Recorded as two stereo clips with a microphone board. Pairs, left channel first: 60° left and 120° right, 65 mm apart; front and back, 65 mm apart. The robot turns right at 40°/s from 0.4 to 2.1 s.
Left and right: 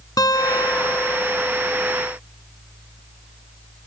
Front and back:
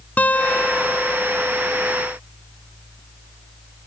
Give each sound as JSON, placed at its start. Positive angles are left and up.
{"t": 0.2, "sound": "a guitar", "azimuth_deg": 65}